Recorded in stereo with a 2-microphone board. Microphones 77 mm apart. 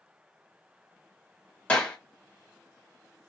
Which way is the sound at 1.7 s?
15° left (ahead or behind).